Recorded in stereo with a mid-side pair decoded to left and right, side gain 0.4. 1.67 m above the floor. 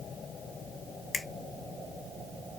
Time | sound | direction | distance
1.1 | a finger snap | 35° left | 1.1 m